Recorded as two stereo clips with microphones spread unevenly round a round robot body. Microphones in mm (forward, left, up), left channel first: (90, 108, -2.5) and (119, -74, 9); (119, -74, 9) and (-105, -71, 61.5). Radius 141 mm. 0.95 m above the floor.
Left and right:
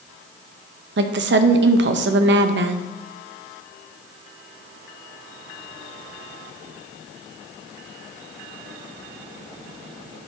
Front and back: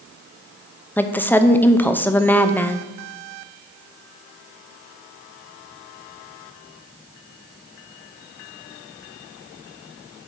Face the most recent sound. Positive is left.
turn(degrees=-75)